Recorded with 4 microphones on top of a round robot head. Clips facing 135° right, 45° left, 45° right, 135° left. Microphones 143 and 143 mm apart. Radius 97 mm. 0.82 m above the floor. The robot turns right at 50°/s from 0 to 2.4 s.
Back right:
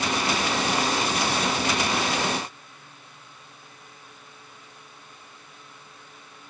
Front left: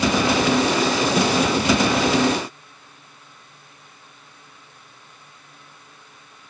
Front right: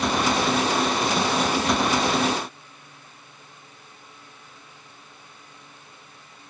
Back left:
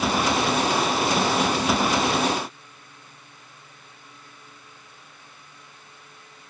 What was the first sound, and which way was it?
Only background noise.